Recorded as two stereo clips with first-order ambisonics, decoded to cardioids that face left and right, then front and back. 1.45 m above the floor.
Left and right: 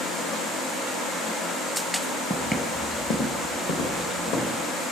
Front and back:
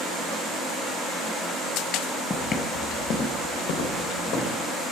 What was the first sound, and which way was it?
Footsteps, 10° right.